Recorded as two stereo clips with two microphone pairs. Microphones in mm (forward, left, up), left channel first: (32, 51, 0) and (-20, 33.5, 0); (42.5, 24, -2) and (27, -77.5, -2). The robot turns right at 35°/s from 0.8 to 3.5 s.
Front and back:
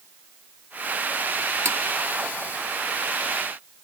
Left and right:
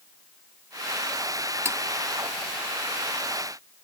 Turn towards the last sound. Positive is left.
turn(degrees=-95)